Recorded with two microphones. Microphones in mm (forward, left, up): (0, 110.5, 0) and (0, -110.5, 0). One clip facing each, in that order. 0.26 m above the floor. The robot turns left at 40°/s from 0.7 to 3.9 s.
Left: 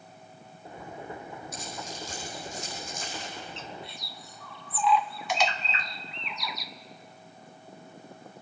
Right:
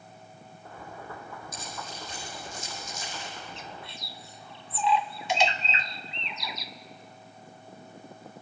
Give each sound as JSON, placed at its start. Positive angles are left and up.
{"t": 1.5, "sound": "keys jangling", "side_deg": 65, "distance_m": 8.5}
{"t": 3.6, "sound": "a bird", "side_deg": -15, "distance_m": 0.6}